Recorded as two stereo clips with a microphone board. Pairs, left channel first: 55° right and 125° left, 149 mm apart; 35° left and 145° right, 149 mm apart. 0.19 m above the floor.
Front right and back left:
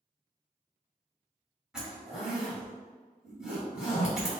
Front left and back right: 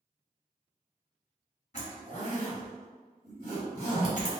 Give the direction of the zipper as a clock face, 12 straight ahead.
11 o'clock.